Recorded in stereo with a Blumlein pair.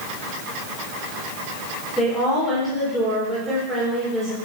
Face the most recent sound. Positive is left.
turn(degrees=-10)